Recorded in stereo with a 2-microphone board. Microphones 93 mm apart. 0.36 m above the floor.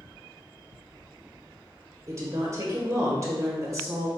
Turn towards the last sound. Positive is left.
turn(degrees=-35)  # may be behind; listen again after turning